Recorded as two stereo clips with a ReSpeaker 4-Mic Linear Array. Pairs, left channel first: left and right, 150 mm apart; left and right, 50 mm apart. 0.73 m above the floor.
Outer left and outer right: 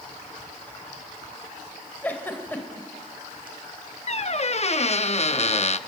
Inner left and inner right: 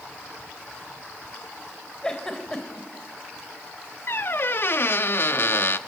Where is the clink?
I don't hear a clink.